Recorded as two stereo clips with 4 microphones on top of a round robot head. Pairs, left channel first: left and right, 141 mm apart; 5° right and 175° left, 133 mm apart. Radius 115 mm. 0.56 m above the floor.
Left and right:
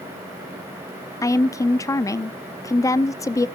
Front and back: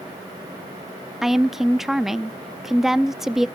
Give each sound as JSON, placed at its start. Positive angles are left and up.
{"t": 1.2, "sound": "a woman speaking", "azimuth_deg": 95, "distance_m": 0.6}